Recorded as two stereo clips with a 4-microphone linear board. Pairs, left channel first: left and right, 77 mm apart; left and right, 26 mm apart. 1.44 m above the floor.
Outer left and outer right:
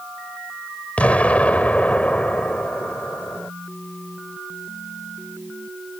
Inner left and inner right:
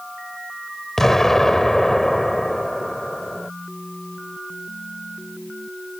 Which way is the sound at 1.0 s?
20° left (ahead or behind).